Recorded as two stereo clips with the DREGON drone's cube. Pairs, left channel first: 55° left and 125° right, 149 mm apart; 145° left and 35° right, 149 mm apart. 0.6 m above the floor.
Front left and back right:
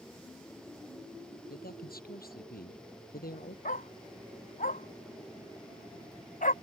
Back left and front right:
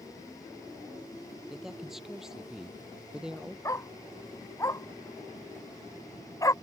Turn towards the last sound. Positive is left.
turn(degrees=80)